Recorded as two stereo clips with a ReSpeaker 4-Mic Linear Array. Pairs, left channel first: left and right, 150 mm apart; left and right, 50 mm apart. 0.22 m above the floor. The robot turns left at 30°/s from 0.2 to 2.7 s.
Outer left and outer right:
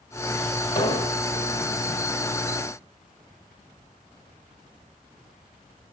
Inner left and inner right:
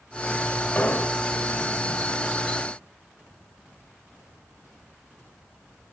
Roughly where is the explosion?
Left.